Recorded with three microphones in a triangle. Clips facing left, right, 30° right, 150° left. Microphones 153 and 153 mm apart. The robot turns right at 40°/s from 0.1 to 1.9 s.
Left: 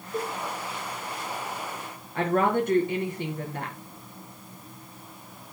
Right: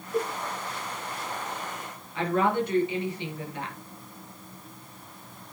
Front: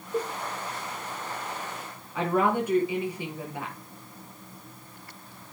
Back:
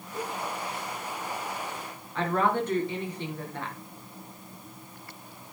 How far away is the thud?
No thud in this recording.